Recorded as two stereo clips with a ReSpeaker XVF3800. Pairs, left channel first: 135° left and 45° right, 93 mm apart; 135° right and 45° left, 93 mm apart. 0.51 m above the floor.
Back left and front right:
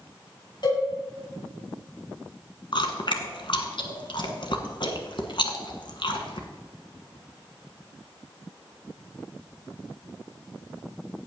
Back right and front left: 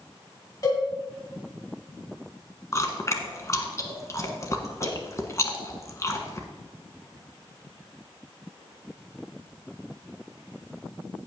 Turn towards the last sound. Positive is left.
turn(degrees=165)